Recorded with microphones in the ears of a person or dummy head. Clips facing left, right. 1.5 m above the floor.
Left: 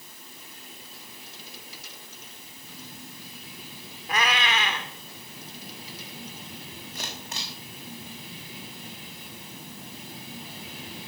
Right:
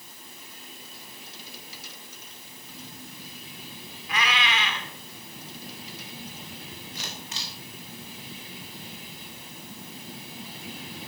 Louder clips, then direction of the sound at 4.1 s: Left 2 dB; 45° left (ahead or behind).